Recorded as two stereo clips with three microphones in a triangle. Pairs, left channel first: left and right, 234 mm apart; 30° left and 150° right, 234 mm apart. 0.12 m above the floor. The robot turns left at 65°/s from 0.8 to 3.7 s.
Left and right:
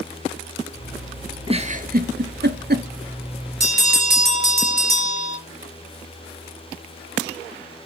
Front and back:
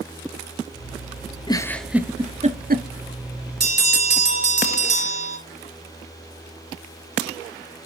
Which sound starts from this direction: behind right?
A bell, at 3.6 s.